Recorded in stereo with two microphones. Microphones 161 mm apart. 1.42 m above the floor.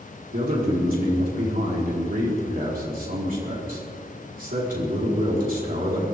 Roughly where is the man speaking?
Right.